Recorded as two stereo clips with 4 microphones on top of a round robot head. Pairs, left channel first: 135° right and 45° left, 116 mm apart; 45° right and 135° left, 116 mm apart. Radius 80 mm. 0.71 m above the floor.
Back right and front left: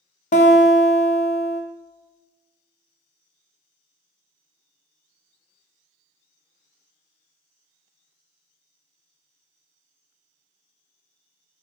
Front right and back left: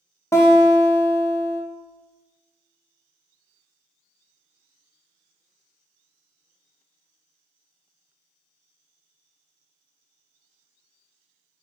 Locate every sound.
0.3 s a guitar: 115° right, 0.5 m